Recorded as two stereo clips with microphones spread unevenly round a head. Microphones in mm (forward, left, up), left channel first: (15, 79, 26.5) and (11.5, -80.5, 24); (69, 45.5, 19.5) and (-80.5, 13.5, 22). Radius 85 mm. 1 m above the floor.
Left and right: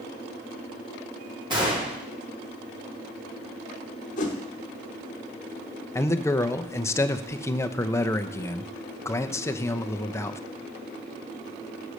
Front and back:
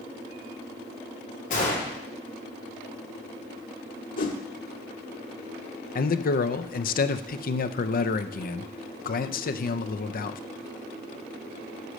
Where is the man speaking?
15° left, 0.6 m.